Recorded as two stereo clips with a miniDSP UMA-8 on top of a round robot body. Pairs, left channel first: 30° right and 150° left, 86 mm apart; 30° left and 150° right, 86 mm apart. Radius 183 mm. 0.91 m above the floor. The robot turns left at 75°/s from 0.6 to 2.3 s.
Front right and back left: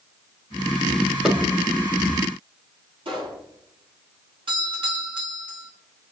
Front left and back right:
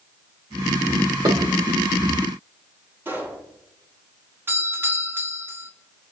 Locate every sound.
1.2 s dishes clattering: 125° right, 3.5 m; by 1.4 s 130° right, 3.5 m
3.0 s a pop: 145° left, 9 m
4.5 s a doorbell: 145° left, 4.5 m